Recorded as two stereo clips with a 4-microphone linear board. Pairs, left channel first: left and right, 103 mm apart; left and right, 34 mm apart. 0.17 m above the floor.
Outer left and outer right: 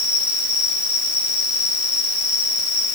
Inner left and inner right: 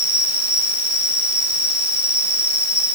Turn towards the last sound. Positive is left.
turn(degrees=-15)  # may be behind; listen again after turning